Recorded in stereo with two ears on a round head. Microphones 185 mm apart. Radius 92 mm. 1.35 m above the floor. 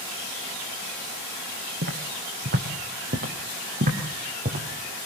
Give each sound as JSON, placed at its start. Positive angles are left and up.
{"t": 1.8, "sound": "footsteps", "side_deg": -55, "distance_m": 4.5}